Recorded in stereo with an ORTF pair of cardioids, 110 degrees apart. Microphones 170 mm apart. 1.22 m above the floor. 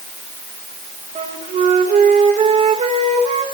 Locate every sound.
1.1 s a flute: 40° right, 1.7 m